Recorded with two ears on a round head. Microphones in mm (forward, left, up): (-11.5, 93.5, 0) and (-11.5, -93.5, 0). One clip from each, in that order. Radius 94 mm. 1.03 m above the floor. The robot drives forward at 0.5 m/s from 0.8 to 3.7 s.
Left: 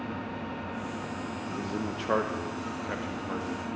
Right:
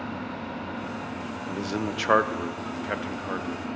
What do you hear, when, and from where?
0.0 s an engine running: 40° right (ahead or behind), 8.5 m; by 3.8 s 45° right (ahead or behind), 7.5 m
1.5 s a man speaking: 70° right (ahead or behind), 0.7 m; by 3.7 s 25° right (ahead or behind), 1.4 m